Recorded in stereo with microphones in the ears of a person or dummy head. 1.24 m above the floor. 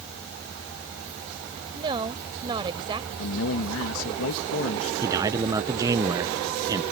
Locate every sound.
1.7 s a woman speaking: 30° right (ahead or behind)
3.2 s a man speaking: 75° left (ahead or behind)
5.0 s a man speaking: 20° right (ahead or behind)